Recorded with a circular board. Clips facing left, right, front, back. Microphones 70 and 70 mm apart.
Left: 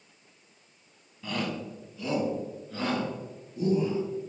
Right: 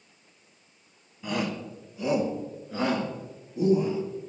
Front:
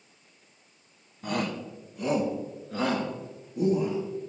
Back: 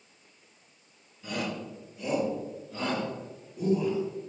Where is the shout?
15° right, 1.5 m; by 4.0 s 25° right, 4 m.